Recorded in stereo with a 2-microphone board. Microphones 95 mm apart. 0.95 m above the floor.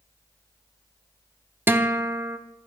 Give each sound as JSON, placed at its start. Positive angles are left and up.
{"t": 1.7, "sound": "a guitar", "side_deg": -20, "distance_m": 0.6}